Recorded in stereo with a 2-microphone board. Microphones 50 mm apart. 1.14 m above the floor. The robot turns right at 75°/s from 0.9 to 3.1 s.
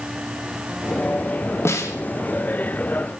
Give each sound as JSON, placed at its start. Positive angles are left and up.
{"t": 1.6, "sound": "a snare drum", "side_deg": 65, "distance_m": 1.7}